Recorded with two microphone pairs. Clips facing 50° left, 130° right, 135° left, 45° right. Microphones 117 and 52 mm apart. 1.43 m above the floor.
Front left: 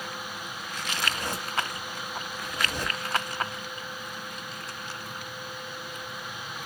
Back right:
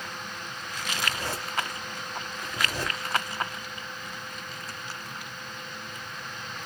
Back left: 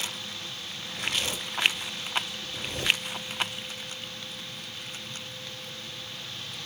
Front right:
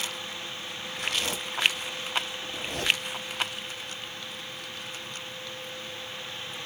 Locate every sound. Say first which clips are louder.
0.9 s a zipper: even, even; 25° right, 1.8 m